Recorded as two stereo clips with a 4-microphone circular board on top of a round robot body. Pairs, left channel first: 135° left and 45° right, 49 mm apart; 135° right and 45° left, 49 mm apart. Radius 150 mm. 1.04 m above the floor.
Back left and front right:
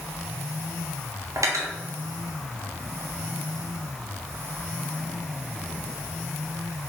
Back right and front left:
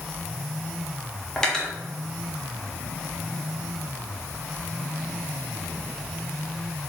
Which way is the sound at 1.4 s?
55° right.